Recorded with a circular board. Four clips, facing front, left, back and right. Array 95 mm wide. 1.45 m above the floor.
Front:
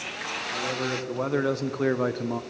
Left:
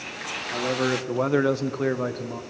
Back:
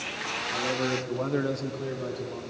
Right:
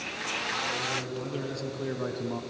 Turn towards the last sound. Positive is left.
turn(degrees=-10)